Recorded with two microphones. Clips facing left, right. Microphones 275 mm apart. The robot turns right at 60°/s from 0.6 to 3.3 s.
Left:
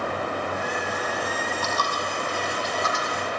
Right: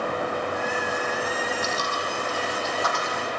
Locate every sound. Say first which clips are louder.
1.6 s a dropped coin: even; 80° left, 4.5 m; by 3.2 s 15° right (ahead or behind), 4.5 m